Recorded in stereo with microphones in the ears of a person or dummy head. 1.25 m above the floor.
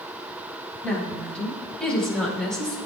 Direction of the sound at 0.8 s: 10° left (ahead or behind).